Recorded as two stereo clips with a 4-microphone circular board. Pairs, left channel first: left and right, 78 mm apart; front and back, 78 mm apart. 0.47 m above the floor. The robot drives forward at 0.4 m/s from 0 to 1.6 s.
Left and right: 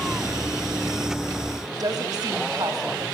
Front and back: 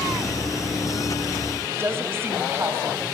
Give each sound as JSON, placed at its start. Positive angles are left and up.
{"t": 1.7, "sound": "a woman speaking", "azimuth_deg": -120, "distance_m": 3.0}